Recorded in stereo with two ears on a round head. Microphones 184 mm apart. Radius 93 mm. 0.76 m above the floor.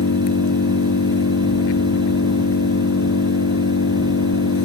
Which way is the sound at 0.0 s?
70° left (ahead or behind).